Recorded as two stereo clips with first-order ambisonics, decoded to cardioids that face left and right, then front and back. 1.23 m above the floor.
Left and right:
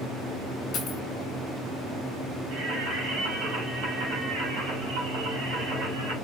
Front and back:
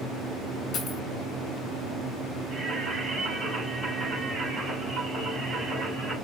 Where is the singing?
95° right, 3 m.